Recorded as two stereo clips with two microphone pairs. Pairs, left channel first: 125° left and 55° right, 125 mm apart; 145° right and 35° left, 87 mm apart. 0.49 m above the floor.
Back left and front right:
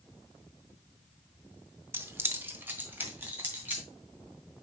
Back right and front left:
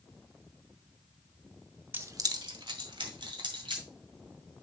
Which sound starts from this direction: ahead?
Keys jangling, at 1.9 s.